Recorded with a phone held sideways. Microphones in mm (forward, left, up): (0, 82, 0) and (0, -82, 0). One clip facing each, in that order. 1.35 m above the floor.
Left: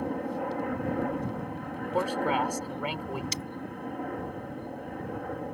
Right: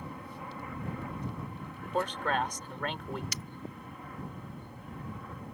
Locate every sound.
0.0 s a helicopter: 65° left (ahead or behind)
1.9 s a man speaking: 10° left (ahead or behind)
3.3 s breaking glass: 30° left (ahead or behind)